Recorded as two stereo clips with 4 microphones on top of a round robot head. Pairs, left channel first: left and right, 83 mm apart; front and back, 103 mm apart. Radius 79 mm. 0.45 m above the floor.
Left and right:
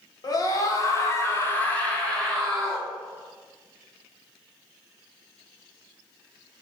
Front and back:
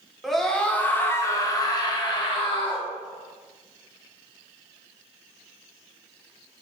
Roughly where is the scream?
Left.